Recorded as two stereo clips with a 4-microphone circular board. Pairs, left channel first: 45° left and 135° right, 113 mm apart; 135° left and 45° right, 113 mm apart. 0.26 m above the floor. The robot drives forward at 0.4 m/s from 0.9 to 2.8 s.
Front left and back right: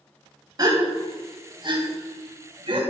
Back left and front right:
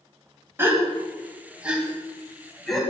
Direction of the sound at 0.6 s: 105° right.